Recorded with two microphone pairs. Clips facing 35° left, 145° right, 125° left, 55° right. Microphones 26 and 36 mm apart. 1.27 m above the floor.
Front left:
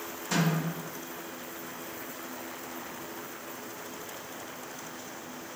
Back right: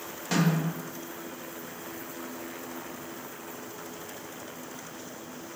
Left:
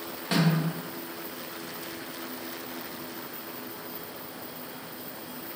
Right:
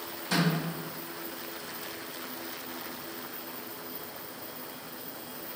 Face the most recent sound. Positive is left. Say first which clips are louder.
# back right 2 dB, left 3 dB
turn(degrees=155)